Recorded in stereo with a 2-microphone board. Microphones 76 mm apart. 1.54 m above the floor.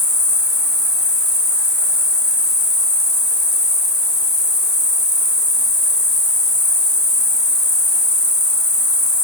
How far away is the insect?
About 1.6 m.